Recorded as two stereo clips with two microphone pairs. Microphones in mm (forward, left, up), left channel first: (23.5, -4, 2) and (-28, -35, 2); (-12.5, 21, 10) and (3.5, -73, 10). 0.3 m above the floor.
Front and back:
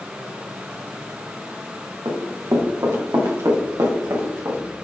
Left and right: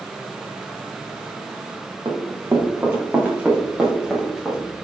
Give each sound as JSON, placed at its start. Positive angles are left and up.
{"t": 2.0, "sound": "running footsteps", "azimuth_deg": -135, "distance_m": 2.0}